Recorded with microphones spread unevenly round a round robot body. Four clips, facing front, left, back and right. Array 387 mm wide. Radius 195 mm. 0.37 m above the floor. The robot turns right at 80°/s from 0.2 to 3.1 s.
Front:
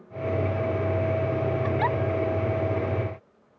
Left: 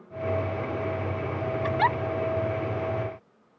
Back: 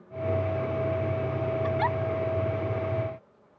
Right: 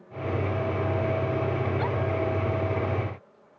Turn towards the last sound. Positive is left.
turn(degrees=-170)